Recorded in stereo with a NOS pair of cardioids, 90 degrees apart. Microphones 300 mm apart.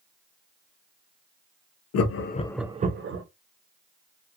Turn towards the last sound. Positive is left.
turn(degrees=-50)